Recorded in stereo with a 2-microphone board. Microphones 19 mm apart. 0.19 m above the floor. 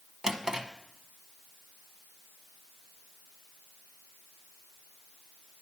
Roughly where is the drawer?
Right.